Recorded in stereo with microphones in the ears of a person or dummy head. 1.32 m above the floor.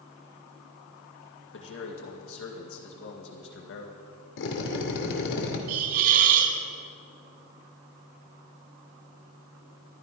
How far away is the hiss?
About 1.3 m.